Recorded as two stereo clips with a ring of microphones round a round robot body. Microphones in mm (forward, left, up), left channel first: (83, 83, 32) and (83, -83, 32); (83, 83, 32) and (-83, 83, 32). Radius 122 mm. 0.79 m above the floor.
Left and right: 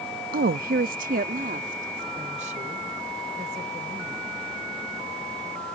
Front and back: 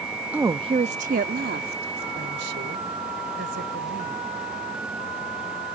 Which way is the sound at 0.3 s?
100° right.